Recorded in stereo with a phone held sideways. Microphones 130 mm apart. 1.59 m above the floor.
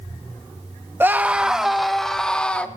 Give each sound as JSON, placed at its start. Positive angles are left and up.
{"t": 1.0, "sound": "a scream", "side_deg": -15, "distance_m": 1.0}